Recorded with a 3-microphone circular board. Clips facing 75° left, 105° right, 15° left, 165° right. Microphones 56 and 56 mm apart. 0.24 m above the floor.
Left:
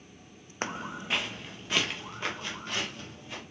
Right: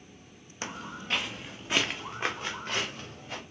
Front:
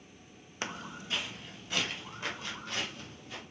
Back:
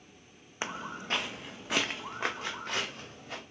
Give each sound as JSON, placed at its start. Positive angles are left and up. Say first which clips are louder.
{"t": 0.6, "sound": "footsteps", "louder": "left 3 dB, back 3 dB", "azimuth_deg": 120, "distance_m": 0.5}